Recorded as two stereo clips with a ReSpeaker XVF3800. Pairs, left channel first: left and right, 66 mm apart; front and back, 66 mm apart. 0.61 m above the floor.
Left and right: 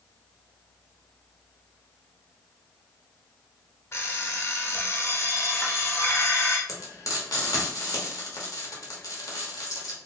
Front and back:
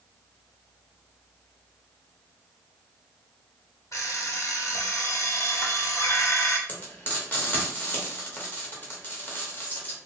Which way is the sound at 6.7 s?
60° left.